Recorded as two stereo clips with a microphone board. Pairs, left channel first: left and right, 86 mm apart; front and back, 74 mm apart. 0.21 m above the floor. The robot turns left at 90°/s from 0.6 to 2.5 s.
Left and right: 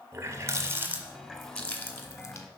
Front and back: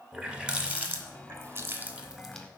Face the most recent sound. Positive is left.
turn(degrees=80)